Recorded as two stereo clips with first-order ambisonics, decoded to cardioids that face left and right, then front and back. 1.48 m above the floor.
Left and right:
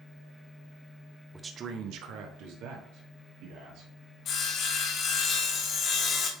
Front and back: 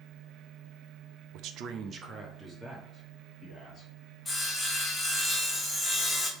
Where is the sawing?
70° left, 1.2 m.